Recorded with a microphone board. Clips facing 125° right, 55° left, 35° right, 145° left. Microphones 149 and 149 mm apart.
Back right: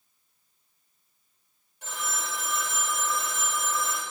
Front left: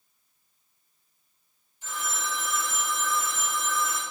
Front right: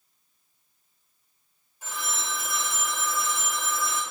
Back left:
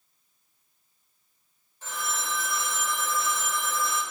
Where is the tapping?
I don't hear tapping.